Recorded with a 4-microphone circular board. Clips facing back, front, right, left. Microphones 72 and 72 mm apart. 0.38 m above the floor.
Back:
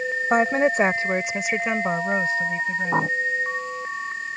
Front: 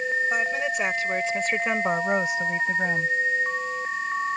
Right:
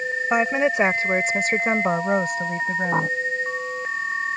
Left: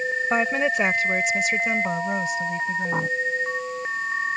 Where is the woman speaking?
165° right; by 3.1 s 55° right.